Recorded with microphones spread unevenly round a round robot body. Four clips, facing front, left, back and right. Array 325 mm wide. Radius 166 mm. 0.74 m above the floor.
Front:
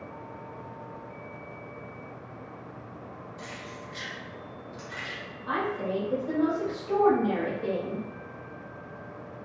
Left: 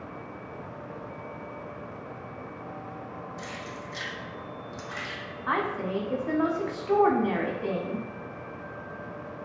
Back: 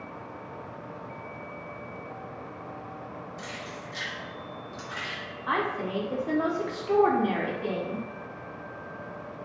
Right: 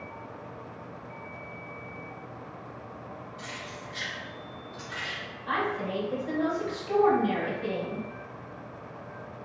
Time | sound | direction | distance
3.4 | keys jangling | 85° left | 0.7 m
5.5 | a woman speaking | 140° left | 0.9 m